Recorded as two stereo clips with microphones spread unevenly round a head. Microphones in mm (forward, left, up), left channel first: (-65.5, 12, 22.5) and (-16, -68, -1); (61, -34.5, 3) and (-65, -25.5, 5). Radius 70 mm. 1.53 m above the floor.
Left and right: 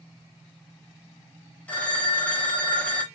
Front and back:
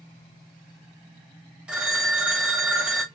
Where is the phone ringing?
100° left, 0.7 m.